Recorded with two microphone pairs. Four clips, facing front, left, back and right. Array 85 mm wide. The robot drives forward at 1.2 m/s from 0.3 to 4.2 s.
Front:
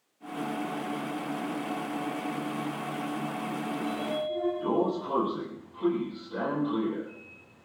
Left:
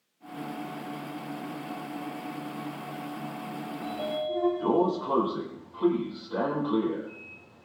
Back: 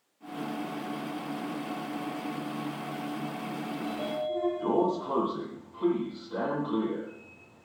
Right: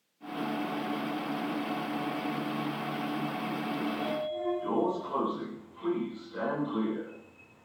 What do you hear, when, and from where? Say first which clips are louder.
3.8 s a sliding door: left 5 dB, back 1 dB; 110° left, 9 m; by 7.7 s 115° left, 9.5 m